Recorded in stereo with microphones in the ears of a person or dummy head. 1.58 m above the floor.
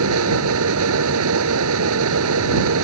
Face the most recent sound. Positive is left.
turn(degrees=-70)  # may be behind; listen again after turning